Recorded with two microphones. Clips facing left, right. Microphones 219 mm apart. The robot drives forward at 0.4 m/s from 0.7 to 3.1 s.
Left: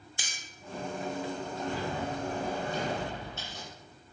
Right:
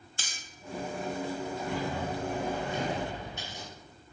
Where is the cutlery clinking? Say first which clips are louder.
Right 3 dB; 15° left (ahead or behind), 0.8 m.